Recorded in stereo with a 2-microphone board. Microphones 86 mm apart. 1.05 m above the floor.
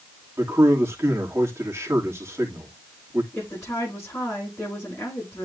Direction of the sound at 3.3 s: 30° left (ahead or behind).